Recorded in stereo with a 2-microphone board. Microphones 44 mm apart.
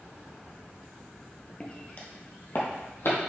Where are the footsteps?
20° left (ahead or behind), 1.0 m; by 3.3 s 65° left (ahead or behind), 1.8 m.